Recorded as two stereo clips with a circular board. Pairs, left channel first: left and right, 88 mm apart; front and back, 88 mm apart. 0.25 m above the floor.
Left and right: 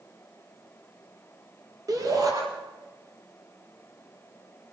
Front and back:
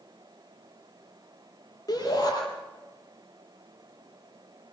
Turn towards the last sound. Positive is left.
turn(degrees=-45)